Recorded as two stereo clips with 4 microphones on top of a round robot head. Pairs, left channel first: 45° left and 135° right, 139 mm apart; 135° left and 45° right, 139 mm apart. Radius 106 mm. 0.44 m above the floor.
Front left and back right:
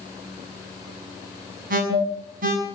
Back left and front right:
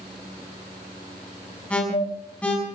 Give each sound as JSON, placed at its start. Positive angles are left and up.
{"t": 1.7, "sound": "an alarm", "azimuth_deg": -145, "distance_m": 5.5}